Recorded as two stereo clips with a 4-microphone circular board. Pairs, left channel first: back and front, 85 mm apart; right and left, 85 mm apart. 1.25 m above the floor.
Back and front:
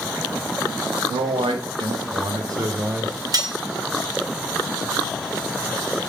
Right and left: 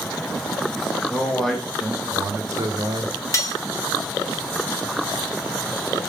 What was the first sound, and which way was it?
A man speaking, 10° right.